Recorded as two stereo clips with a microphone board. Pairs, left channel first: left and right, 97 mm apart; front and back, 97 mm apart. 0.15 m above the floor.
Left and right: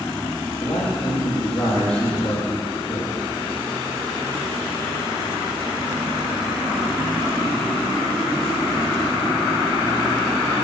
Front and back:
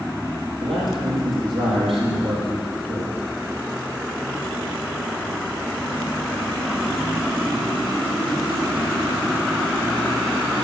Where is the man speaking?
170° left, 4.5 m.